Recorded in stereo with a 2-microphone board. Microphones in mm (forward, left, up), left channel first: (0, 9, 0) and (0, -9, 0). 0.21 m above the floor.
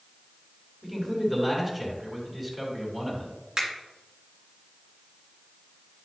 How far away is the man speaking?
About 2.5 m.